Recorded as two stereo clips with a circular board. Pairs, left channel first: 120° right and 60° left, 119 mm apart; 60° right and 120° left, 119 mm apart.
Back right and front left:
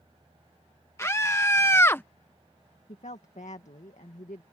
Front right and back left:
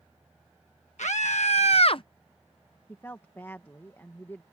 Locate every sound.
1.0 s a scream: 55° right
2.9 s a woman speaking: 130° right